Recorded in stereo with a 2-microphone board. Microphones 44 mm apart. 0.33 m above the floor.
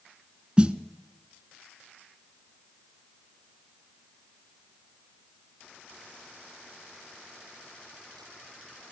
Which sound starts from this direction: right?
A snare drum, at 0.6 s.